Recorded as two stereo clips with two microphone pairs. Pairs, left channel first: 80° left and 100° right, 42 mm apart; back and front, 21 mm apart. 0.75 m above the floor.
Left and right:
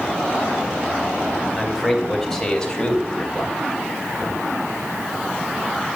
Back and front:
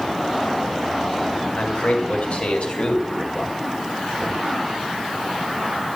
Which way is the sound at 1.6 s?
175° left.